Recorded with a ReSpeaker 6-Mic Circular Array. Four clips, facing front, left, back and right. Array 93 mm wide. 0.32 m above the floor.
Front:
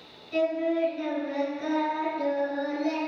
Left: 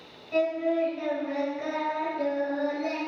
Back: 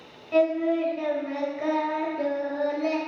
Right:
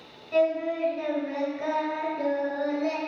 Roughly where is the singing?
Behind.